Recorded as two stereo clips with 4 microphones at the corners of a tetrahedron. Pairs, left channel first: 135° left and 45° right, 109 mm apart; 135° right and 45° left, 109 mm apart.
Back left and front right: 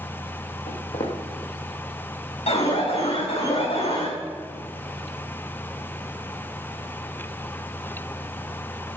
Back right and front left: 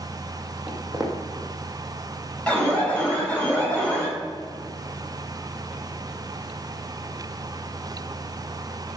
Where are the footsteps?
135° left, 2.5 m.